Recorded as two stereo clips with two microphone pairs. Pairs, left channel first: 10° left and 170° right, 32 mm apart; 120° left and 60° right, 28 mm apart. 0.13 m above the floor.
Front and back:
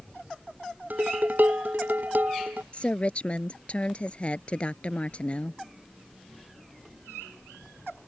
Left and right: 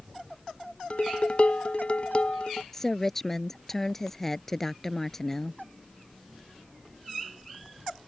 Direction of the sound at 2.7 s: 45° left.